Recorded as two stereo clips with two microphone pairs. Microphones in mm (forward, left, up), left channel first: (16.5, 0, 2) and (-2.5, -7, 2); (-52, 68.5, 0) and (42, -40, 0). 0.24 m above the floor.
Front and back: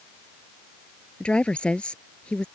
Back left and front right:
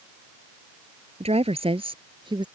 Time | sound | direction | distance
1.2 | a woman speaking | 10° right | ?